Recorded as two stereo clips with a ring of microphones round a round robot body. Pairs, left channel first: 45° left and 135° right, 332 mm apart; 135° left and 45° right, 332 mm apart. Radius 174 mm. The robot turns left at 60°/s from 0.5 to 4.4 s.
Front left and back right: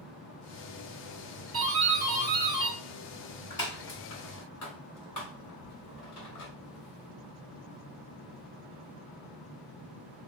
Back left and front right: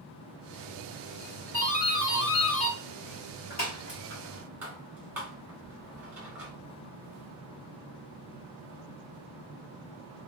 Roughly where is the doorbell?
Behind right.